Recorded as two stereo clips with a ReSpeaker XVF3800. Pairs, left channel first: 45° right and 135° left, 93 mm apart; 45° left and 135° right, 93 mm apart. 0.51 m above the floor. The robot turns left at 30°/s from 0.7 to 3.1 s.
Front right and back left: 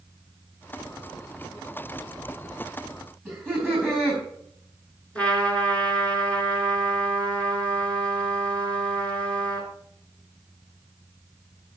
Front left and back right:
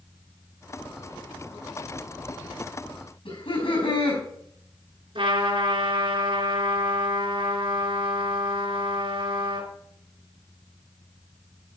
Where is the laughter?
45° left, 4.5 m.